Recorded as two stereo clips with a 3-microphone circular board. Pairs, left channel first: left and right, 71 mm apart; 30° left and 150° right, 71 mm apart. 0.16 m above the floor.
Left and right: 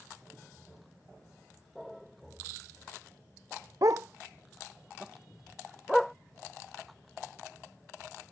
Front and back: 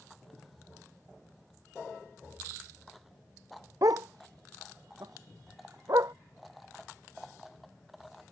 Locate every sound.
3.8 s a dog barking: 120° right; by 6.1 s 175° left